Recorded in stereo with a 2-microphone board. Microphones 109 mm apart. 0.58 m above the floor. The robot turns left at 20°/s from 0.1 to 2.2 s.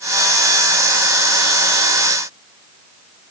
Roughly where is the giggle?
No giggle in this recording.